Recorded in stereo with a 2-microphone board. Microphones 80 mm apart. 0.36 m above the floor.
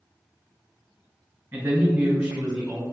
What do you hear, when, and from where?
1.5 s a man speaking: 25° right (ahead or behind), 1.0 m; by 2.8 s 10° right (ahead or behind), 1.0 m